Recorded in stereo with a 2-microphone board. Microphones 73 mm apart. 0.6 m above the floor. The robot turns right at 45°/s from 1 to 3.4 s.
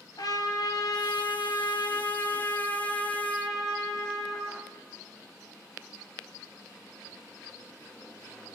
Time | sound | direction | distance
0.2 | a trumpet | 75° left | 2.5 m